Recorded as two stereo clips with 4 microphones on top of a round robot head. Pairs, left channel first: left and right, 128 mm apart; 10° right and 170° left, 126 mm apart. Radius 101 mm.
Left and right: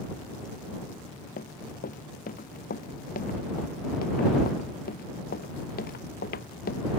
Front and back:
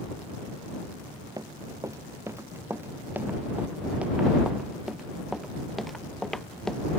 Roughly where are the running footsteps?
Left.